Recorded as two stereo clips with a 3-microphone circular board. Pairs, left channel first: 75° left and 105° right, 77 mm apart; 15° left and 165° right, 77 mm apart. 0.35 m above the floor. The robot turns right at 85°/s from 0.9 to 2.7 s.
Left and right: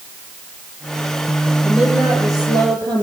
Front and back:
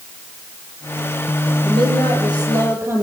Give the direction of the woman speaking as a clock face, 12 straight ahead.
7 o'clock.